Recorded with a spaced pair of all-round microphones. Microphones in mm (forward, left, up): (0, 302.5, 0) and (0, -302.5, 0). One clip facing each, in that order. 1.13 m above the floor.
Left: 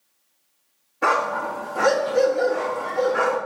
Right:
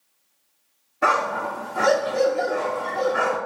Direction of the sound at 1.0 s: 5° right (ahead or behind).